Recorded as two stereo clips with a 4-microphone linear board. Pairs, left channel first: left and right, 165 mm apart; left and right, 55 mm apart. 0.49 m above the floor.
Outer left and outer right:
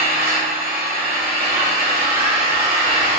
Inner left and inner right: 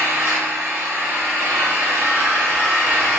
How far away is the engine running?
About 1.4 m.